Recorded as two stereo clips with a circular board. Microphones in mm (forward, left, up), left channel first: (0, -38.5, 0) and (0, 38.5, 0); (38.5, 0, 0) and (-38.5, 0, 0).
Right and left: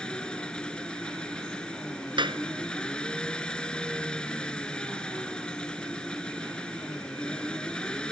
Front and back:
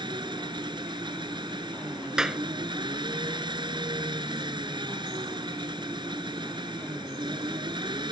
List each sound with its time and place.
0.0 s an engine running: 170° right
2.2 s a clap: 95° left